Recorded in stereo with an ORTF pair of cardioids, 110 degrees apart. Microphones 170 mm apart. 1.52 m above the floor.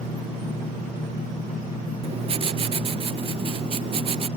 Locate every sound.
2.0 s writing: 35° right